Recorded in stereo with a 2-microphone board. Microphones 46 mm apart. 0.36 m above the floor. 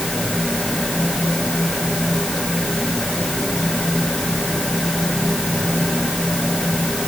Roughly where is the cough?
I don't hear a cough.